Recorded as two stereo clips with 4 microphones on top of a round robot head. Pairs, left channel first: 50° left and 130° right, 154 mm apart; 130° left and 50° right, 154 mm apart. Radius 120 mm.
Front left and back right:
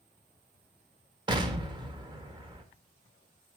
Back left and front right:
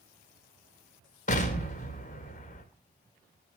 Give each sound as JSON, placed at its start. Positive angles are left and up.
{"t": 1.3, "sound": "an explosion", "azimuth_deg": 170, "distance_m": 1.7}